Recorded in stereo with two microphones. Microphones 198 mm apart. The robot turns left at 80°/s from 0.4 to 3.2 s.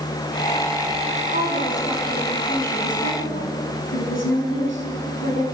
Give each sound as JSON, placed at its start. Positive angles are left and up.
{"t": 1.3, "sound": "a woman speaking", "azimuth_deg": -125, "distance_m": 6.0}